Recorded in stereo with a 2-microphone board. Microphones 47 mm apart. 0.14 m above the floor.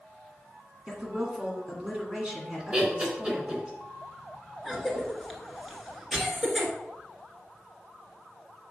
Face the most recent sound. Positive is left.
turn(degrees=-5)  # may be behind; listen again after turning